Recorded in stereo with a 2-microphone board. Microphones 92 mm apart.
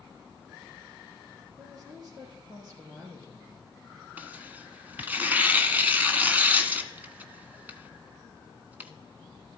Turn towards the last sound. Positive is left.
turn(degrees=-20)  # may be behind; listen again after turning